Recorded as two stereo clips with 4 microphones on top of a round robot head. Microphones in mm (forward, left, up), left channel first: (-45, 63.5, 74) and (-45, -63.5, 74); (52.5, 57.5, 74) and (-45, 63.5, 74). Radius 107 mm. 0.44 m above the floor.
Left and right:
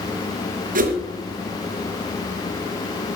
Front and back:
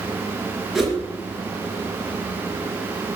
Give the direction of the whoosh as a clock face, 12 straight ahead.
3 o'clock.